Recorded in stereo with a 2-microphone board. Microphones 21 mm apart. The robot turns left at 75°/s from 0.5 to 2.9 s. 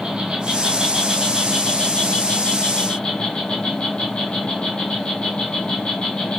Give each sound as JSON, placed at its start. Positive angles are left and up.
{"t": 0.0, "sound": "an insect", "azimuth_deg": -120, "distance_m": 1.3}